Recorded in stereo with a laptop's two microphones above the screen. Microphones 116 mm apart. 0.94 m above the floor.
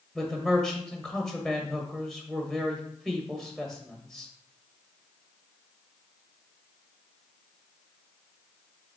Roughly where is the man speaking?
Centre.